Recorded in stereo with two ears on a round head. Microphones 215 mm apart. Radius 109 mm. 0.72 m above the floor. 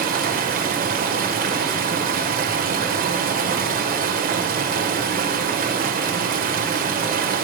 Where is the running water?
35° right (ahead or behind), 2.5 m.